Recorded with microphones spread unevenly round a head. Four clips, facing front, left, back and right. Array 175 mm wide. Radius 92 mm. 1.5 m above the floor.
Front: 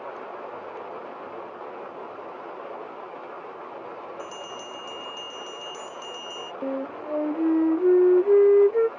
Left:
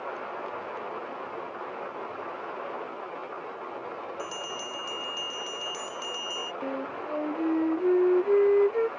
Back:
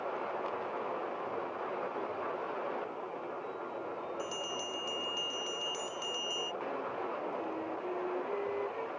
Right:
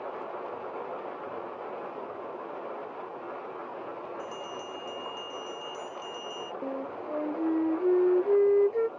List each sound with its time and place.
4.2 s a bell: 100° left
6.6 s a flute: 5° left